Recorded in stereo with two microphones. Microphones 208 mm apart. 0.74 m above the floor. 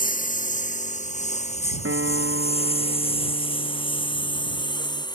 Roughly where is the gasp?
I don't hear a gasp.